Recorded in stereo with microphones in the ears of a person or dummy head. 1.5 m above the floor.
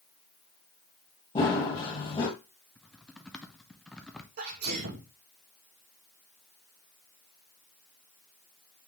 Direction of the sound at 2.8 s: 5° left (ahead or behind).